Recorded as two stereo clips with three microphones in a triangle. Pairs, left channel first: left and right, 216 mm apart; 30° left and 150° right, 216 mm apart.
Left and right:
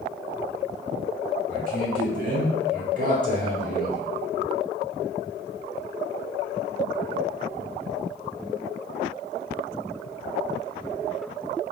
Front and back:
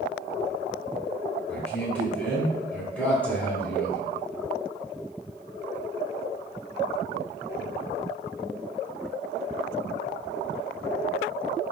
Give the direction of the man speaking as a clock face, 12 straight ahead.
2 o'clock.